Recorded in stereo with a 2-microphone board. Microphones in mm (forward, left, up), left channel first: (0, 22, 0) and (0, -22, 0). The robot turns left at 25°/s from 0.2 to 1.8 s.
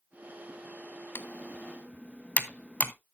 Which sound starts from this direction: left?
Typing on a keyboard, at 1.1 s.